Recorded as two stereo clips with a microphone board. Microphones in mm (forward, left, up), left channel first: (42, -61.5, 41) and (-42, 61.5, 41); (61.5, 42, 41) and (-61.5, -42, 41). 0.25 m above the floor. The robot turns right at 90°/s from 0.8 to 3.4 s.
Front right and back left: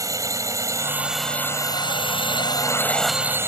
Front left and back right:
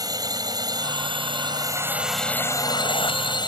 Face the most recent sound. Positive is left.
turn(degrees=65)